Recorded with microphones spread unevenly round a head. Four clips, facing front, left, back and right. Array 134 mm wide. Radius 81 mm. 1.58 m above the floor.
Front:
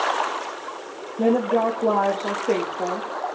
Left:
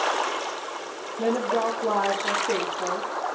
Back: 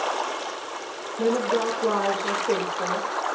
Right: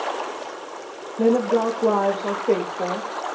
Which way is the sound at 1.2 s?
75° right.